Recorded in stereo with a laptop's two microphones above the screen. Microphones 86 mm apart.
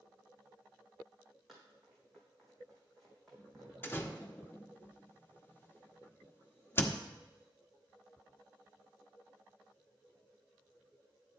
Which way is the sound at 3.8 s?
25° left (ahead or behind).